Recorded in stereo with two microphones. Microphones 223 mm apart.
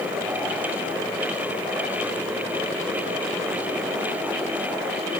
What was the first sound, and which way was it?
Only background noise.